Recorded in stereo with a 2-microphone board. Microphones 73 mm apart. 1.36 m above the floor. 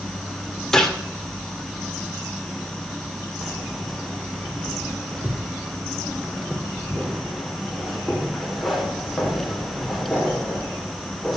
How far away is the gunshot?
About 2 m.